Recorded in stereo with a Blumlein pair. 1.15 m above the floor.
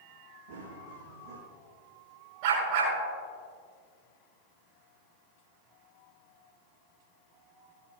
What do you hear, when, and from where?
0.5 s running footsteps: 50° right, 4.5 m
2.4 s a dog barking: 50° right, 4.5 m